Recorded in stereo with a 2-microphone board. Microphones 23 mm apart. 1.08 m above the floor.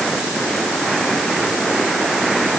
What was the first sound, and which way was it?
Only background noise.